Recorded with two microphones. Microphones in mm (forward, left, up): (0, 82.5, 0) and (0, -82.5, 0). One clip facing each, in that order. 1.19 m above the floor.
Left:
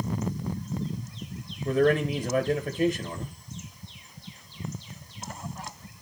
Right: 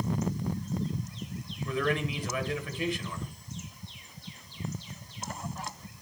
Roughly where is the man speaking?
Left.